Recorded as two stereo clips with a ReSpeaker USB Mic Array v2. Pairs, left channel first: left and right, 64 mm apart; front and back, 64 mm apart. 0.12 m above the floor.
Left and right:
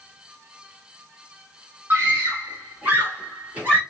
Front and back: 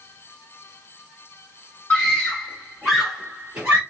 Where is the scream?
65° right, 1.8 m; by 3.8 s 135° right, 1.5 m.